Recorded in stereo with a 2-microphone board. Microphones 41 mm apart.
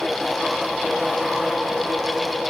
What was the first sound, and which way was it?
Only background noise.